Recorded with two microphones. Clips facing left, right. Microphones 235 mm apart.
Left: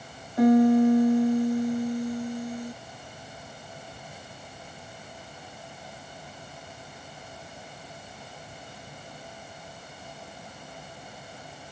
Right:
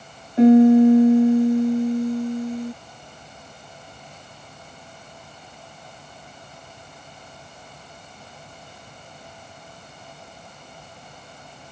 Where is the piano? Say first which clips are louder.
Right 7 dB; 25° right (ahead or behind).